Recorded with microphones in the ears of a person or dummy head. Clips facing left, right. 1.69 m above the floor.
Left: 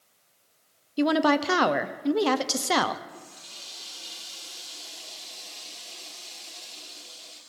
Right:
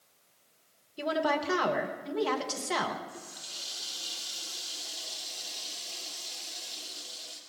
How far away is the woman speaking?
About 0.9 m.